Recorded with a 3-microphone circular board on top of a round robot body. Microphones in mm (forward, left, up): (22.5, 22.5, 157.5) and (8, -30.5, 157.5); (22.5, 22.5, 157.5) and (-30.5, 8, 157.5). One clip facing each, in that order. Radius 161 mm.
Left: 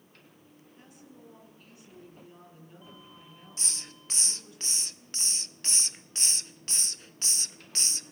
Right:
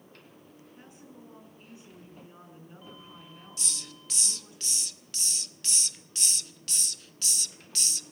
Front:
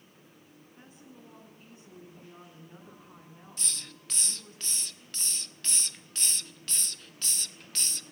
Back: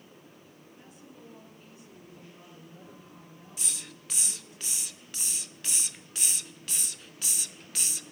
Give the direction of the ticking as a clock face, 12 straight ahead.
No ticking in this recording.